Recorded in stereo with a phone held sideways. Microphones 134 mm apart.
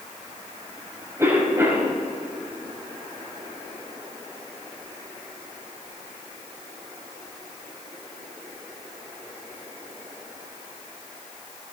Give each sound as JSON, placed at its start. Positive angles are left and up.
{"t": 1.2, "sound": "a cough", "side_deg": -20, "distance_m": 5.0}